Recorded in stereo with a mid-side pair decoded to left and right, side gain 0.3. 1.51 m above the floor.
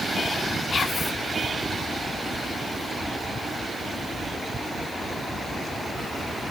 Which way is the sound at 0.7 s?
55° left.